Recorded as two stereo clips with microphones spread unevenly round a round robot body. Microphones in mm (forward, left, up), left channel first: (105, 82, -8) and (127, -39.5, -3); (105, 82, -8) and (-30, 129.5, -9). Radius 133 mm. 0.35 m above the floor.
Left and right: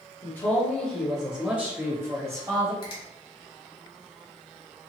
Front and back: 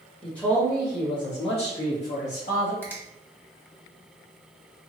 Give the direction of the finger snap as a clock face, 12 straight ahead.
10 o'clock.